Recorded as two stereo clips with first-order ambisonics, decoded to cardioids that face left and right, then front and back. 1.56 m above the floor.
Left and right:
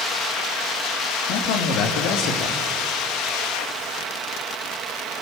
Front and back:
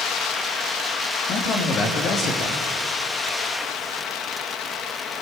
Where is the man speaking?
60° left, 3 m.